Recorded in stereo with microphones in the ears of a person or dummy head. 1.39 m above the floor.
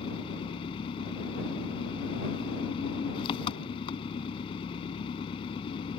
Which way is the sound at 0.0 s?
25° left (ahead or behind).